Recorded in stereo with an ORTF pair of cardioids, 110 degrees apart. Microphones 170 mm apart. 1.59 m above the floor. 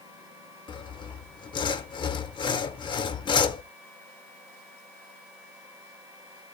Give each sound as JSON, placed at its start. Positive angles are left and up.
{"t": 0.7, "sound": "sawing", "azimuth_deg": 30, "distance_m": 0.9}